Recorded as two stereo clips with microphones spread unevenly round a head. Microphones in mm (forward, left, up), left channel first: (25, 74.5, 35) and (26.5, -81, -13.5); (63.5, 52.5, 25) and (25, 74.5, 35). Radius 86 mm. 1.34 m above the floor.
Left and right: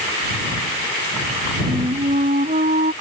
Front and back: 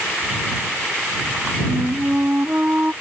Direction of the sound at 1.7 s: 145° right.